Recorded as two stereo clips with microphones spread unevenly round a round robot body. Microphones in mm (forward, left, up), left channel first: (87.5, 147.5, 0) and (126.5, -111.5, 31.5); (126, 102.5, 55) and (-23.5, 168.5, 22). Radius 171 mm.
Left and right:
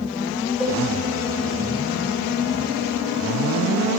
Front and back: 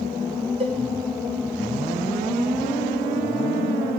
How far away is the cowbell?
About 0.6 m.